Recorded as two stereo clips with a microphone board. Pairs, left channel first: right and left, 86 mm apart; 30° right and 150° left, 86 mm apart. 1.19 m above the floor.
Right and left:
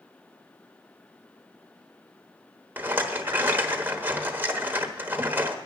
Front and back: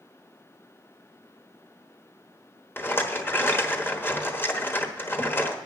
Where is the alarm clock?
No alarm clock in this recording.